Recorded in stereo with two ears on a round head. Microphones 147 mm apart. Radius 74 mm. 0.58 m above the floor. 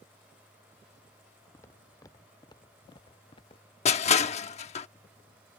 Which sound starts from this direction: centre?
Footsteps, at 1.5 s.